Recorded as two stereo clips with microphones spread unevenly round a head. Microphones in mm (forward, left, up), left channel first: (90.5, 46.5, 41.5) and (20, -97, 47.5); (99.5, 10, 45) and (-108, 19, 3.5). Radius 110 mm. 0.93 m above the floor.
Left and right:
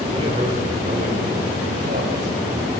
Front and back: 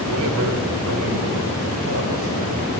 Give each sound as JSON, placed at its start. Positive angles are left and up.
{"t": 0.1, "sound": "a man speaking", "azimuth_deg": 175, "distance_m": 4.0}